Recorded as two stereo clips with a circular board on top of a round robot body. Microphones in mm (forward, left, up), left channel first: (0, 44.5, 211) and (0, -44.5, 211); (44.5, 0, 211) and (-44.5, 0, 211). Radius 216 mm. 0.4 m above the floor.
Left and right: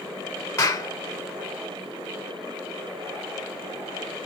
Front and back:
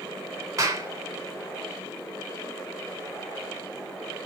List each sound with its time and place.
0.6 s a clap: 130° left, 1.7 m